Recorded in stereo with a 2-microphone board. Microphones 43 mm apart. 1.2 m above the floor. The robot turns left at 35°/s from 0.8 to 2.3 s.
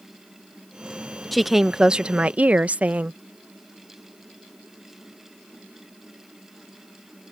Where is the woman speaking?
Straight ahead; by 3.2 s 35° right.